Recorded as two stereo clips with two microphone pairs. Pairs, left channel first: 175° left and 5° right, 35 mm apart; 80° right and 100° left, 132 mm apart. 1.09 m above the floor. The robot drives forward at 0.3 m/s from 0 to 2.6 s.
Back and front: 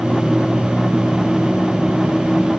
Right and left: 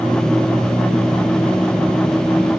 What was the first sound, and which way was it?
Only background noise.